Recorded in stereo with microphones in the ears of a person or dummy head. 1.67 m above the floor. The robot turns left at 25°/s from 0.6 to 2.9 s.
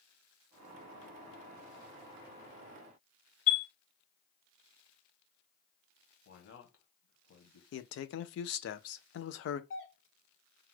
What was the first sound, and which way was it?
A chime, 50° left (ahead or behind).